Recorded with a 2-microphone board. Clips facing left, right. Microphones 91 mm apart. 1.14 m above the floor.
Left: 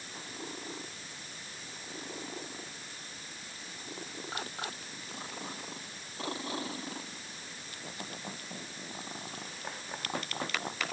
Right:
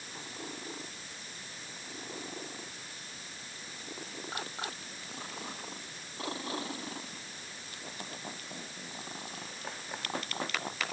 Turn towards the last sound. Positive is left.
No sound to turn to.